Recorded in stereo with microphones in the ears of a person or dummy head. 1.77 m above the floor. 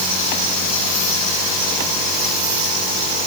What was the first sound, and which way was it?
Only background noise.